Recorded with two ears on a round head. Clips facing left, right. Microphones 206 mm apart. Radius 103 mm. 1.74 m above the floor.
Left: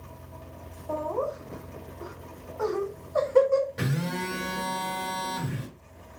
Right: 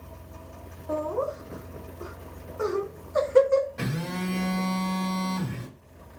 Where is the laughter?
25° right (ahead or behind), 0.9 m.